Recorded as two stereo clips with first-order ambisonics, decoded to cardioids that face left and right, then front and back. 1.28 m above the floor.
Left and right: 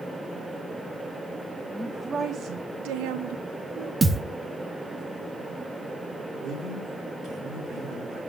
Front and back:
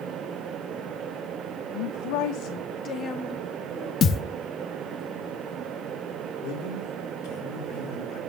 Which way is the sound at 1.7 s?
10° left.